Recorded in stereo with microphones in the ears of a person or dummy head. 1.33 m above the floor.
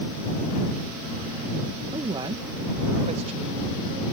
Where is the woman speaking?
20° right (ahead or behind); by 4.0 s 40° right (ahead or behind).